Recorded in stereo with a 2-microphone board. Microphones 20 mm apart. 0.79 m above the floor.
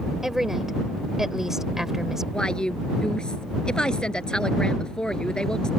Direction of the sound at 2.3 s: 50° left (ahead or behind).